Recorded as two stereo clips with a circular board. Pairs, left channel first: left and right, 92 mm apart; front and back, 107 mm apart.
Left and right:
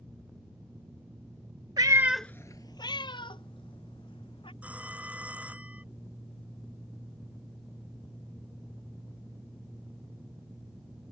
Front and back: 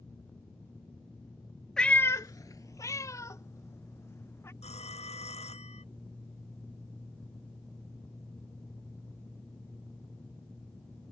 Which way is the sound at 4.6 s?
15° right.